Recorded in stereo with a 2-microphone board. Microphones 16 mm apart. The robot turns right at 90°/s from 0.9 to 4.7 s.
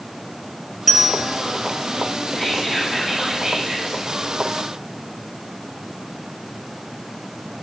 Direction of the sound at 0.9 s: 10° left (ahead or behind).